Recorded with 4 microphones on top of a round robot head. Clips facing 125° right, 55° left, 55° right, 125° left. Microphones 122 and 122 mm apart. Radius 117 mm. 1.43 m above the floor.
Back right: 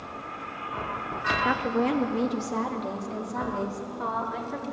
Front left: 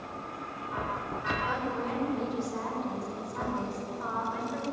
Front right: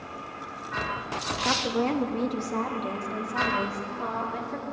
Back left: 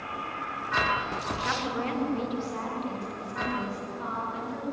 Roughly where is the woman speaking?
Right.